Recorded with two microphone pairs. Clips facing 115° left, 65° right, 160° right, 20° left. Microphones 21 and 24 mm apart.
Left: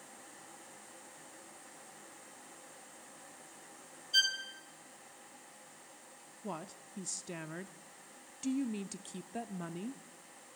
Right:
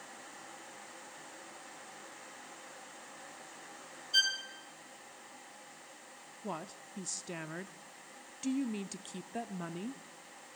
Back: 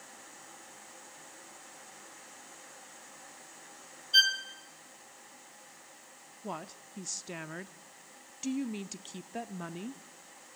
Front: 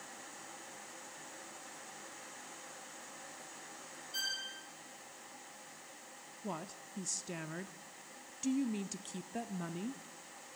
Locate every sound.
4.1 s a violin: 150° right, 2.5 m
6.4 s a woman speaking: 120° right, 0.6 m